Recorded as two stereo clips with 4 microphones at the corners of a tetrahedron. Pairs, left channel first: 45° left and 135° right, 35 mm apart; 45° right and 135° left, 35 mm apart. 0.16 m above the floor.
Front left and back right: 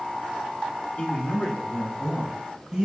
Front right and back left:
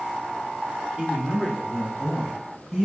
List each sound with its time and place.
1.0 s a man speaking: 65° left, 2.5 m; by 2.9 s 145° right, 1.3 m